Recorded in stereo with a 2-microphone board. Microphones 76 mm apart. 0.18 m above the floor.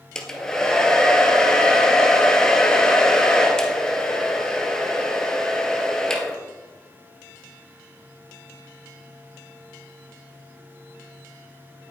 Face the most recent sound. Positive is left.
turn(degrees=10)  # may be behind; listen again after turning